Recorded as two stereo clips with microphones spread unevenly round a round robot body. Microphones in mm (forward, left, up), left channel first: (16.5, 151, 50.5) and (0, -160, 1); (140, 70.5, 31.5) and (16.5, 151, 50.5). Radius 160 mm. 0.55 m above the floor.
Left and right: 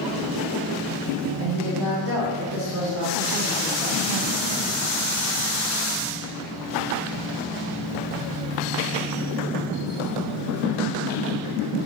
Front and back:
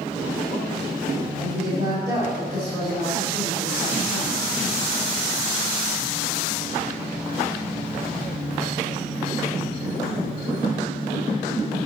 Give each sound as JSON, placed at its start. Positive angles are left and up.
{"t": 1.4, "sound": "a woman speaking", "azimuth_deg": -135, "distance_m": 2.5}